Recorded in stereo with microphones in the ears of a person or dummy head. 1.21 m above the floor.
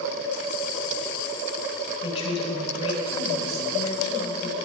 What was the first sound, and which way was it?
A woman speaking, 30° left (ahead or behind).